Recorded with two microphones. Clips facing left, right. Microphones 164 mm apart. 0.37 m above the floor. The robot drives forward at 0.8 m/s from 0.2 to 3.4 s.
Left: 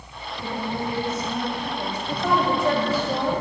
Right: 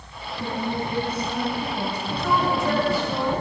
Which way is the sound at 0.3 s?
45° right (ahead or behind).